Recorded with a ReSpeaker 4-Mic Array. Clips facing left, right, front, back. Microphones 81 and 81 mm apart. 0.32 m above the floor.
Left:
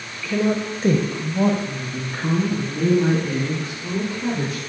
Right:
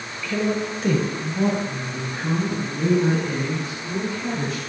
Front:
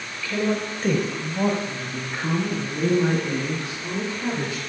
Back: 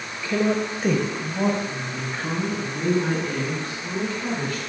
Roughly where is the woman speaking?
Behind.